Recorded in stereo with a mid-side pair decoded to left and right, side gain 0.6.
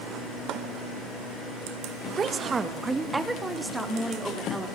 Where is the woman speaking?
35° right, 1.9 m; by 4.7 s 5° right, 5 m.